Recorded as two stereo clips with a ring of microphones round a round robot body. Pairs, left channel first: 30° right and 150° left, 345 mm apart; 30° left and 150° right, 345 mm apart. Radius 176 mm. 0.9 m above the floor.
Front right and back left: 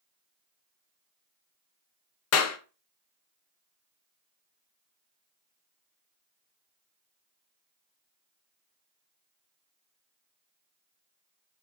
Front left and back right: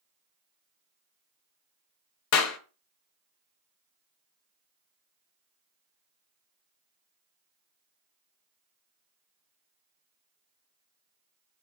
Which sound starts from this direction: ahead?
A clap, at 2.3 s.